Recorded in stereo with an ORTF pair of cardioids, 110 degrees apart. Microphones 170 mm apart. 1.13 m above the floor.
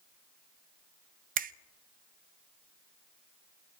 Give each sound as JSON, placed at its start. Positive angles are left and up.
{"t": 1.4, "sound": "a finger snap", "azimuth_deg": -65, "distance_m": 0.6}